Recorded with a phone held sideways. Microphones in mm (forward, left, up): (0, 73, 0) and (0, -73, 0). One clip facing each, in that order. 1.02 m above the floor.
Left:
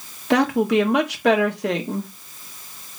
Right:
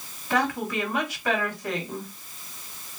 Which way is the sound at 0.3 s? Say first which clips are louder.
Left 9 dB; 70° left (ahead or behind).